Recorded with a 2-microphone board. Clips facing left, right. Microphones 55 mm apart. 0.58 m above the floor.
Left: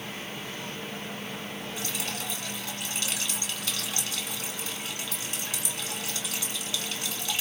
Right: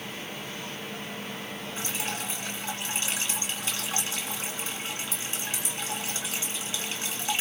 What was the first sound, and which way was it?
Dripping, 30° right (ahead or behind).